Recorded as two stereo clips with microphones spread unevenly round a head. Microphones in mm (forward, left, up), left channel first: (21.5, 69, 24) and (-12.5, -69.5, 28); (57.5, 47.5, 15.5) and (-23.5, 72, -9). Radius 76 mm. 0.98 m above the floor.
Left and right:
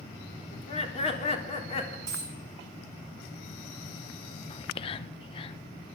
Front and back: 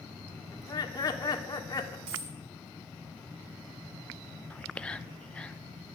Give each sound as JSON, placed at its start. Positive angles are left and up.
{"t": 0.5, "sound": "laughter", "azimuth_deg": 30, "distance_m": 3.0}
{"t": 2.1, "sound": "a dropped coin", "azimuth_deg": -170, "distance_m": 4.5}
{"t": 4.5, "sound": "whispering", "azimuth_deg": 75, "distance_m": 0.6}